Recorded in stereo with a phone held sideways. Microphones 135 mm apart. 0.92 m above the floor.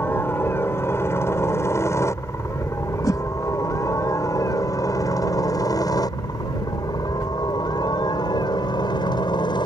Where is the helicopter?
15° left (ahead or behind); by 9.7 s 35° left (ahead or behind).